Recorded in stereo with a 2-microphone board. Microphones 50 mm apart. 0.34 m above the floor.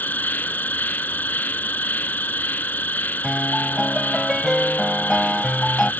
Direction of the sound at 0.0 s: 40° left (ahead or behind).